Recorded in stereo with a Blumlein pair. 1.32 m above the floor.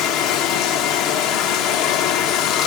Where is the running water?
40° left, 1.0 m.